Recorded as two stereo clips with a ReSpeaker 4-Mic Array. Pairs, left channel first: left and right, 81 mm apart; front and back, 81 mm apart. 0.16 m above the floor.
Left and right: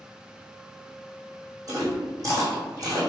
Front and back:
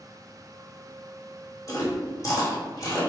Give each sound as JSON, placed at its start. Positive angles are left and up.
{"t": 1.7, "sound": "chewing", "azimuth_deg": -45, "distance_m": 1.9}